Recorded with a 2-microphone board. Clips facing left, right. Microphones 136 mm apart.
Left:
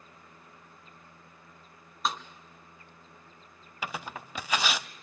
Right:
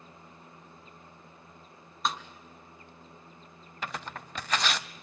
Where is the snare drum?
Centre (ahead or behind), 1.5 m.